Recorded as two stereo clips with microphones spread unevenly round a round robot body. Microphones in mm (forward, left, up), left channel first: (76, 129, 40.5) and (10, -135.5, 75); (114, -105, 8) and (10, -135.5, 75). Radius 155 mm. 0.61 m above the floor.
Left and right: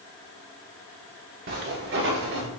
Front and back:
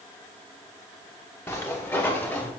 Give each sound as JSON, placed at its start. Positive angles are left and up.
{"t": 1.5, "sound": "footsteps", "azimuth_deg": -60, "distance_m": 3.5}